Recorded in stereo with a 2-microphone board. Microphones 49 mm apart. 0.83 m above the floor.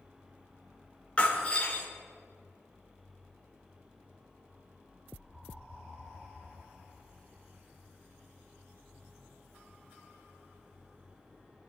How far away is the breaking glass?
About 3.5 m.